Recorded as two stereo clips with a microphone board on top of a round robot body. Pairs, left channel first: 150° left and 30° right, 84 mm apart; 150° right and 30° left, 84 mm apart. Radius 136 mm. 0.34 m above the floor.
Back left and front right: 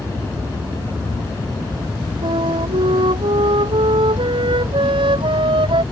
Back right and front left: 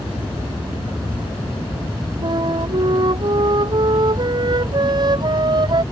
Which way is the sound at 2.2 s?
10° right.